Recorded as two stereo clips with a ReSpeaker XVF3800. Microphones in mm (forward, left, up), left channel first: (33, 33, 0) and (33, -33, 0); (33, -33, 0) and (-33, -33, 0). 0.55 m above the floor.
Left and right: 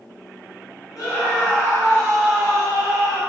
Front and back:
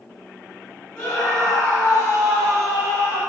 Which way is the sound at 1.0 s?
70° left.